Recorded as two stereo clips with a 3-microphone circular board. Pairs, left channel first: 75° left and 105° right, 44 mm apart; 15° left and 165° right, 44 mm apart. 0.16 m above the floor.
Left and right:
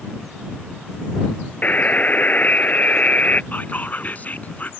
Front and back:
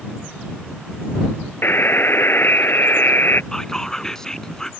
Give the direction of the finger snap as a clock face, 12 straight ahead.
I don't hear a finger snap.